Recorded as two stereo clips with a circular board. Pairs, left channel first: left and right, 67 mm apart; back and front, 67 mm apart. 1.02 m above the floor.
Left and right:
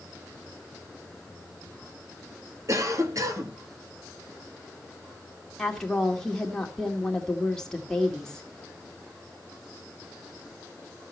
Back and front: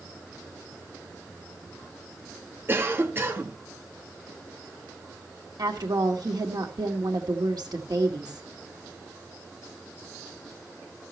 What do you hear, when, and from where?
2.7 s a cough: 55° right, 1.8 m
5.6 s a woman speaking: 10° left, 2 m